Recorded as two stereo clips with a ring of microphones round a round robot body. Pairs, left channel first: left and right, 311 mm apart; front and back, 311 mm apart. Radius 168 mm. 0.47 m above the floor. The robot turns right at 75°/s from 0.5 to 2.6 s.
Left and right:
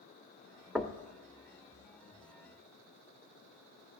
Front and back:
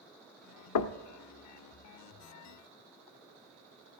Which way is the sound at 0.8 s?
5° right.